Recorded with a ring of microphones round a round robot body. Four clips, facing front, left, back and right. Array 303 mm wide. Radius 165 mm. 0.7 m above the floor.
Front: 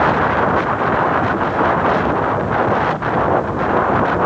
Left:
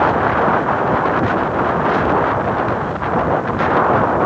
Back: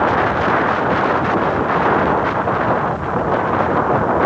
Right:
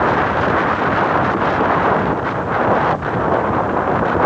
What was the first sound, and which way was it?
Only background noise.